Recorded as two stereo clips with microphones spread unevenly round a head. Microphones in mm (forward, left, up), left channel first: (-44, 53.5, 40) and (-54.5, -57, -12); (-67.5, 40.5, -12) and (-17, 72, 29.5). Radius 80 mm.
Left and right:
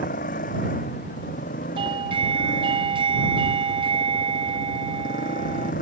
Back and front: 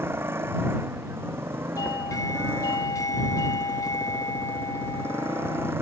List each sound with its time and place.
0.0 s a motorcycle: 80° left
1.8 s a doorbell: 130° right